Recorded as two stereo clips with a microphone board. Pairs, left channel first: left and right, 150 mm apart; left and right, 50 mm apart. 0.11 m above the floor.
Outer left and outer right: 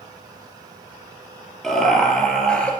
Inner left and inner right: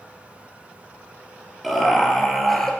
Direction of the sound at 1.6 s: 5° left (ahead or behind).